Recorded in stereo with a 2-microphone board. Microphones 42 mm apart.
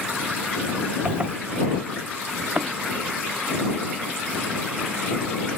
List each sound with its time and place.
1.1 s a zipper: 25° right (ahead or behind)
2.4 s a thud: 50° right (ahead or behind)